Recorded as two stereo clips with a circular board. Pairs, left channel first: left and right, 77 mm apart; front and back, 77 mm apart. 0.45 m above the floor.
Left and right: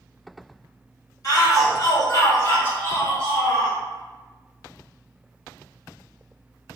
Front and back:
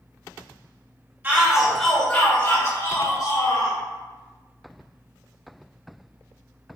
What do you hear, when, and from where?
1.2 s a shout: 115° left, 1.6 m; by 3.8 s 10° left, 2.5 m